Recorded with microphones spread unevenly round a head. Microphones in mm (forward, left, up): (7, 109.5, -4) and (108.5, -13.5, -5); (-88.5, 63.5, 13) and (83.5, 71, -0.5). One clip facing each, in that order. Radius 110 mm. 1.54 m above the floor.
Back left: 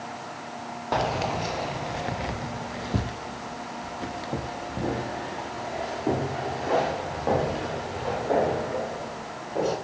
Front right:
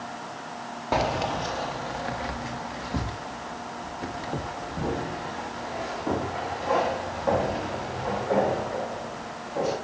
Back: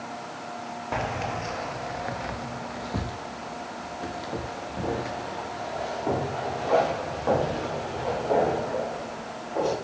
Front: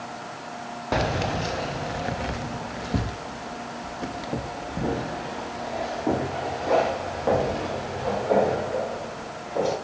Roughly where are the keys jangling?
Ahead left.